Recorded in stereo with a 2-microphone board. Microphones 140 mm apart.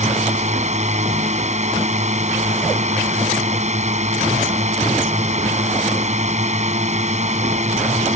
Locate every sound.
0.0 s a drone: 55° right (ahead or behind)